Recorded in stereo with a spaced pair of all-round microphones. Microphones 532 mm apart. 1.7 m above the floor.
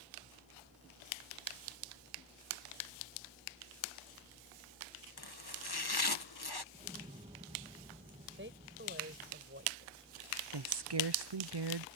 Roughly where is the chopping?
Left.